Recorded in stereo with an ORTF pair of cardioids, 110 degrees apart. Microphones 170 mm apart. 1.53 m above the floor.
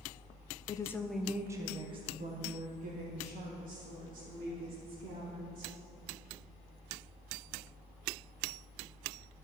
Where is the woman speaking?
25° left, 0.7 m; by 5.8 s 65° right, 3 m.